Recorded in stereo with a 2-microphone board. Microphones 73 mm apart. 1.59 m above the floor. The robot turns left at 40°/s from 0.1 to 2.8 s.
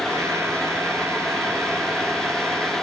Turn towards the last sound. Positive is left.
No sound to turn to.